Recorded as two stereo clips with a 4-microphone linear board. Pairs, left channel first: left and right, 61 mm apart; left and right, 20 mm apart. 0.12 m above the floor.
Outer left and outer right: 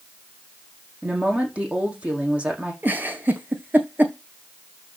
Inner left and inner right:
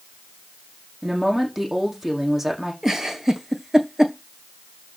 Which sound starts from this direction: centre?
A woman speaking, at 1.0 s.